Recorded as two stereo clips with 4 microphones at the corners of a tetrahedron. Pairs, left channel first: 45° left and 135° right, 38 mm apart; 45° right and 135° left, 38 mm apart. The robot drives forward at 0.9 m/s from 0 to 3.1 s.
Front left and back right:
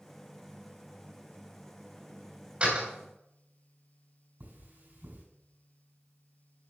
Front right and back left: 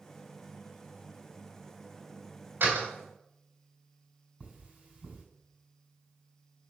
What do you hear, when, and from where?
2.6 s a door slam: 165° left, 3 m; by 2.9 s 170° left, 3 m
4.4 s cutlery clinking: 165° right, 5.5 m